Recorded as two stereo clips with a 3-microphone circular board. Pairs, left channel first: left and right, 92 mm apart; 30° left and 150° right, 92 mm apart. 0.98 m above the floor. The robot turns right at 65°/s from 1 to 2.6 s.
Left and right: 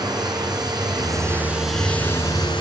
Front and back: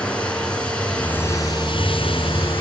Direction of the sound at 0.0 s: 45° right.